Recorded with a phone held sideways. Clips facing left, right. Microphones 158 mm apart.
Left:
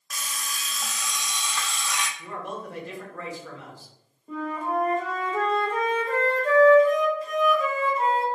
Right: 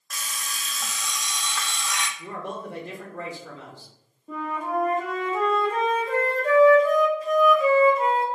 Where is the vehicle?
I don't hear a vehicle.